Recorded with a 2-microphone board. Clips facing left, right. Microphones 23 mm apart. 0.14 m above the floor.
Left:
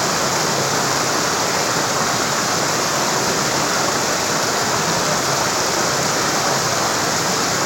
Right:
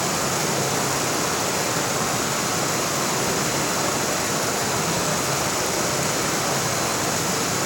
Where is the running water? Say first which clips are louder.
Left 5 dB; 45° left (ahead or behind), 2.5 m.